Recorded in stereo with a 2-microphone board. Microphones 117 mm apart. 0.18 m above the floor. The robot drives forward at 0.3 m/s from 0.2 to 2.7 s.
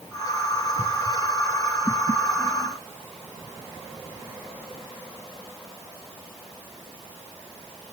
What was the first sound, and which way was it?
Only background noise.